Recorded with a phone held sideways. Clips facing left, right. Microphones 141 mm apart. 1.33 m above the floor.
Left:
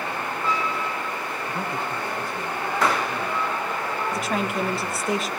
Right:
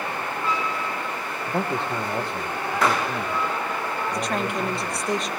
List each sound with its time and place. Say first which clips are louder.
1.5 s a man speaking: right 6 dB; 70° right (ahead or behind), 1.0 m
4.1 s a woman speaking: even; 5° left (ahead or behind), 1.6 m